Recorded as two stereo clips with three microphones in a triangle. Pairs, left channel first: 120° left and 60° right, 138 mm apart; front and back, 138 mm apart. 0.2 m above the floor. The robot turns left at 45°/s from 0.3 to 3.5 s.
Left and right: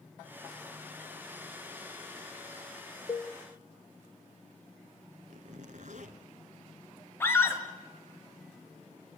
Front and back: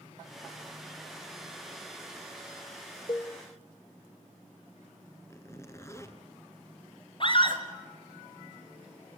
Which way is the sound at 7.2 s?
50° left.